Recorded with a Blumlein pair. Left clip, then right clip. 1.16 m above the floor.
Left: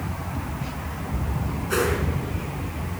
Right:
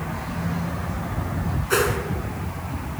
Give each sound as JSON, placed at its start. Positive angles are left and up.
{"t": 1.7, "sound": "a whoosh", "azimuth_deg": -15, "distance_m": 4.5}